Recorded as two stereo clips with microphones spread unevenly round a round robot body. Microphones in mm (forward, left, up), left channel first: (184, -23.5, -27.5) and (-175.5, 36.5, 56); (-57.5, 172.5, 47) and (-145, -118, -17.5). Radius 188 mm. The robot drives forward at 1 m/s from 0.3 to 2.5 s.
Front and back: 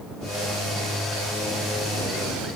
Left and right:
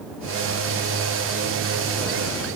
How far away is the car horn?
No car horn in this recording.